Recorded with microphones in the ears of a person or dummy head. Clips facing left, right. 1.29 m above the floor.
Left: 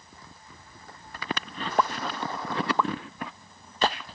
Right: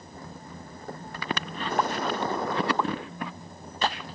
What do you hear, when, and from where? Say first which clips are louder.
0.0 s a vehicle: right 9 dB; 40° right (ahead or behind)
1.8 s a pop: even; 65° left (ahead or behind)